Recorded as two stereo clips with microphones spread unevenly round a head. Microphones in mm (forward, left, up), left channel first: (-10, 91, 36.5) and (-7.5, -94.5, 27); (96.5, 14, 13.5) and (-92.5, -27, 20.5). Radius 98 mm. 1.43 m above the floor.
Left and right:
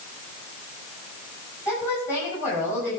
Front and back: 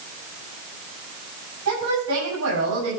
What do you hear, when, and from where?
1.6 s a woman speaking: 165° left, 10 m